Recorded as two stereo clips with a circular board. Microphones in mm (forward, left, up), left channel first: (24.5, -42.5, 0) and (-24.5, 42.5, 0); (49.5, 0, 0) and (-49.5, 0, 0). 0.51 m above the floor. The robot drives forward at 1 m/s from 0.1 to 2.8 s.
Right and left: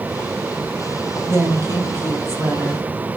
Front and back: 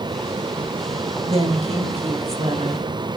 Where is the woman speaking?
175° right, 2.0 m.